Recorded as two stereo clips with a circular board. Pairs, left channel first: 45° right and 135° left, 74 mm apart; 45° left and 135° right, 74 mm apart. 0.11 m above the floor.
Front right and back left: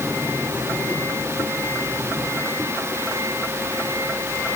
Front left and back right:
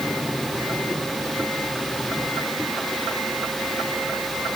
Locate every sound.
Only background noise.